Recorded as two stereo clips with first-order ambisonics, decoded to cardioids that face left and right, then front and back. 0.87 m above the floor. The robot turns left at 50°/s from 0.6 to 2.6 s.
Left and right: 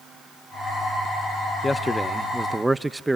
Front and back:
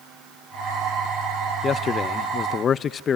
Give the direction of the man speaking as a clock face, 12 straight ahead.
11 o'clock.